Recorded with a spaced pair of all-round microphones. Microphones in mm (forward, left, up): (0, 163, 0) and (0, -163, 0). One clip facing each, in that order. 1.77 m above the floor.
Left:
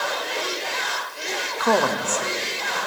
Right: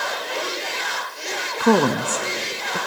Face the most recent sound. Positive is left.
turn(degrees=-55)  # may be behind; listen again after turning